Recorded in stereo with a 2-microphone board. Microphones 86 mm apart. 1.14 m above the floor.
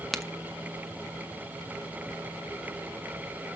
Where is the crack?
Centre (ahead or behind), 1.1 m.